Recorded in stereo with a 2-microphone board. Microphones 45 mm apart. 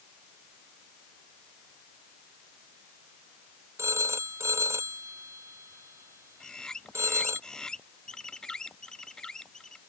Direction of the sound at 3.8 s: 85° right.